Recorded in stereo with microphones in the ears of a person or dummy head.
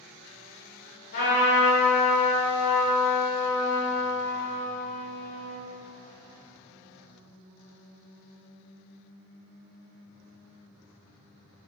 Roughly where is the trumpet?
Left.